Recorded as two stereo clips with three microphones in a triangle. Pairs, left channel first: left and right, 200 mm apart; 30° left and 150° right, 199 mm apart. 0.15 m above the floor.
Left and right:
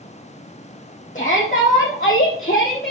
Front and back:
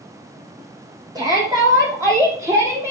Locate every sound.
1.1 s a shout: 140° left, 5 m; by 2.9 s 135° left, 5.5 m